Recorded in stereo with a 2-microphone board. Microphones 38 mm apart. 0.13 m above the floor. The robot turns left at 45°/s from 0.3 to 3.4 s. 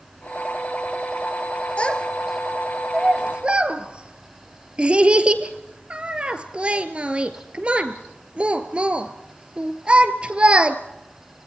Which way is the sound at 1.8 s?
30° left (ahead or behind).